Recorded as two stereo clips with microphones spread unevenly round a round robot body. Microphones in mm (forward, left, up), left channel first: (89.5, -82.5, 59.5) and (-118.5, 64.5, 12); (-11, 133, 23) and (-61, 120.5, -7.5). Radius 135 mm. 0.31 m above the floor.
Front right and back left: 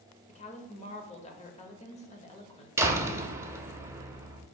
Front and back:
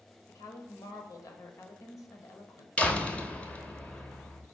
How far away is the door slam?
About 0.8 m.